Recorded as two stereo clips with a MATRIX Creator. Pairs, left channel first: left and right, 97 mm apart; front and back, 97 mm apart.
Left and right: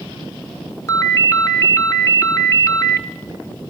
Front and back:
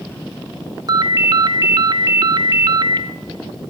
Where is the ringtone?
145° left, 0.6 m.